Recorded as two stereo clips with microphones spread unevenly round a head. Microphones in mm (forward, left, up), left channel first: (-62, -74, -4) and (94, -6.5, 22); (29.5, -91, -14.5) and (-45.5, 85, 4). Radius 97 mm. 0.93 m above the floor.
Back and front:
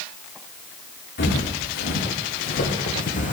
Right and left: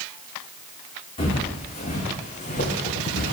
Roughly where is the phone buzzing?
No phone buzzing in this recording.